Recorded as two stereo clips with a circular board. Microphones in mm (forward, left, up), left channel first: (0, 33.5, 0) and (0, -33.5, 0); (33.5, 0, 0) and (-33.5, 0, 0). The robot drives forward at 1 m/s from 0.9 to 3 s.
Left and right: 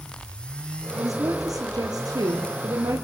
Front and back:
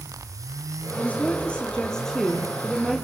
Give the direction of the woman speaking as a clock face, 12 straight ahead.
2 o'clock.